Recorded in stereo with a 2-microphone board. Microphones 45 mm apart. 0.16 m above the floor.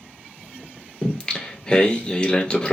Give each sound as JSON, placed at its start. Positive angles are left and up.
{"t": 1.0, "sound": "singing", "side_deg": 20, "distance_m": 1.0}